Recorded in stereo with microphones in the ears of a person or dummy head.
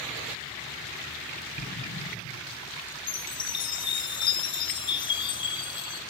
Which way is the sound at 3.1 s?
30° left (ahead or behind).